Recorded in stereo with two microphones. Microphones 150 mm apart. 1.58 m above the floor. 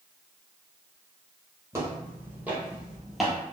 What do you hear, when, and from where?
1.7 s footsteps: 20° right (ahead or behind), 1.7 m; by 3.4 s centre (ahead or behind), 1.6 m